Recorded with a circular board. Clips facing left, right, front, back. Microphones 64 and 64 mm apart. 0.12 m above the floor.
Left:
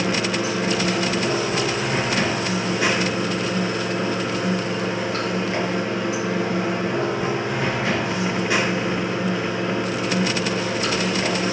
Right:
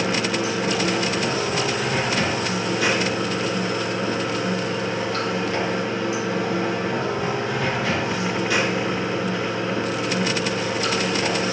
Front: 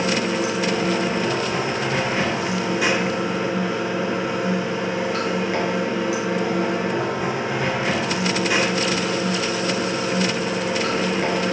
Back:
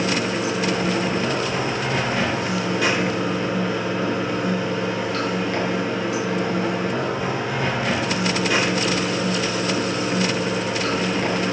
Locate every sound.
0.0 s running water: 55° left, 1.6 m